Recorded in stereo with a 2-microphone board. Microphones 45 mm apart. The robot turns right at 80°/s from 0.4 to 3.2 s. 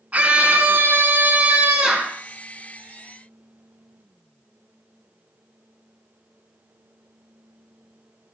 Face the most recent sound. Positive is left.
turn(degrees=85)